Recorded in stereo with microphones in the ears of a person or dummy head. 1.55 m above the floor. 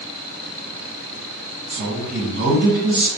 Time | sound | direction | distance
1.7 | a woman speaking | 60° right (ahead or behind) | 1.4 m